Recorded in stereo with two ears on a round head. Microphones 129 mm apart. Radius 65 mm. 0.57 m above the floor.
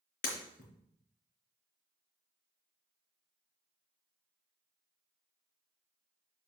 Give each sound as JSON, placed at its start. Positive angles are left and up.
{"t": 0.2, "sound": "breaking glass", "side_deg": 65, "distance_m": 3.5}